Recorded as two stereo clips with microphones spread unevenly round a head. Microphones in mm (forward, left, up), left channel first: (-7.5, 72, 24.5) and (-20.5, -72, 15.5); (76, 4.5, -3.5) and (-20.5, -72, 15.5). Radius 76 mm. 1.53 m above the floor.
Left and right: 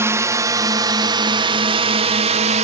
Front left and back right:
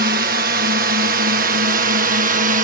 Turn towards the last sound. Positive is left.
turn(degrees=-130)